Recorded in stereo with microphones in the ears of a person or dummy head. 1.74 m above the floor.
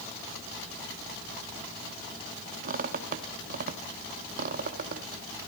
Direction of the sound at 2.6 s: 55° right (ahead or behind).